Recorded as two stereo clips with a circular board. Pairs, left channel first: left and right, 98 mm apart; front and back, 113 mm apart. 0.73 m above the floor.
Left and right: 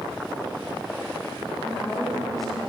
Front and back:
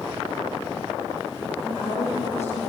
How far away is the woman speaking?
About 3.5 m.